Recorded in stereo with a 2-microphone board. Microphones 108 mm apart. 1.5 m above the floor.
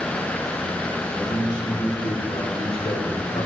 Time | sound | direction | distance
1.1 | a man speaking | 35° left (ahead or behind) | 2 m